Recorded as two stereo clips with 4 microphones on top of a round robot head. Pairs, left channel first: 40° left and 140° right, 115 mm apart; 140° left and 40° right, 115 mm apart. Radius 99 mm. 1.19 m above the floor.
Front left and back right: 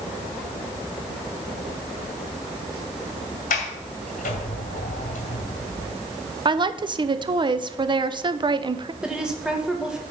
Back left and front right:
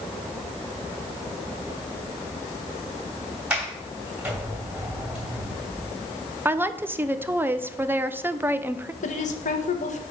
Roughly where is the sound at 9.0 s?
Behind left.